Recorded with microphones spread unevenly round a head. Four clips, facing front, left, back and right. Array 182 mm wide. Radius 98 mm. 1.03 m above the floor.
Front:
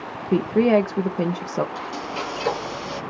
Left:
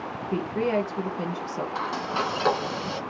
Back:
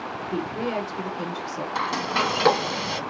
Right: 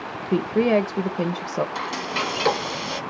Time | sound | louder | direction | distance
0.3 | a woman speaking | right 6 dB, front 11 dB | 45° right | 0.5 m
1.8 | frying | even, back 4 dB | 175° right | 1.7 m